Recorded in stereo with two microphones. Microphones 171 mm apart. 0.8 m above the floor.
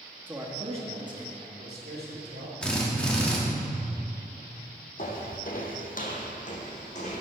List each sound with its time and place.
0.3 s a man speaking: 10° right (ahead or behind), 1.7 m; by 2.5 s 75° right (ahead or behind), 3.5 m
2.6 s a drill: 5° left (ahead or behind), 2.0 m
5.0 s footsteps: 50° left (ahead or behind), 1.2 m; by 7.2 s 40° left (ahead or behind), 2.5 m